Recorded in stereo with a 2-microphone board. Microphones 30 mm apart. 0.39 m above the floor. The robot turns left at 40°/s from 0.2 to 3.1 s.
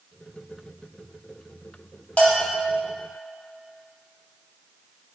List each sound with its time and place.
2.2 s a bell: 45° left (ahead or behind), 0.9 m; by 2.7 s 20° left (ahead or behind), 0.9 m